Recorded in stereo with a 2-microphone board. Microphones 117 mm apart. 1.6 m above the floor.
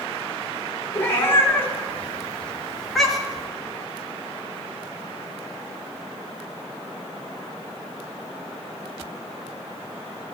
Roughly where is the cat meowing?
Centre.